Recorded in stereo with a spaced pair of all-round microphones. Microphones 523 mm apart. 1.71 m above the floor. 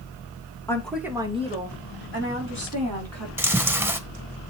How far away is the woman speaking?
About 2.5 m.